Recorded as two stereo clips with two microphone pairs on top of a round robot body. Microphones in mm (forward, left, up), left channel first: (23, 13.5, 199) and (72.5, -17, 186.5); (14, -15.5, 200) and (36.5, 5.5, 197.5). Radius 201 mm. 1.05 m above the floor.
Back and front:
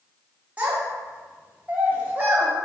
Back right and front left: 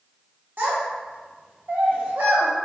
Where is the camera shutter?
I don't hear a camera shutter.